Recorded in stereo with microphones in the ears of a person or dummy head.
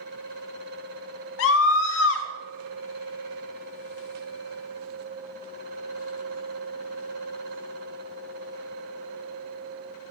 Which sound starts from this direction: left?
A scream, at 1.4 s.